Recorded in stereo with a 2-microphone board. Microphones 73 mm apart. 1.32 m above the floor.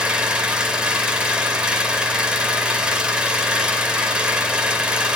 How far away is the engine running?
About 2.5 m.